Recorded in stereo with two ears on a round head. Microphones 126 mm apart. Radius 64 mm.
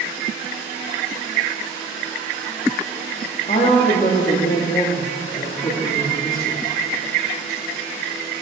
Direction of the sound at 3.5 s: 45° left (ahead or behind).